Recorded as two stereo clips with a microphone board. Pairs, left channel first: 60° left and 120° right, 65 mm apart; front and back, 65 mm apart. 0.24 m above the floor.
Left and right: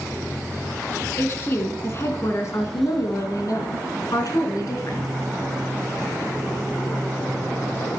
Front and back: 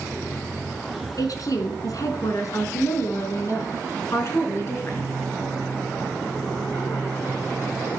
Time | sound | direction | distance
1.2 | a woman speaking | 10° left | 3 m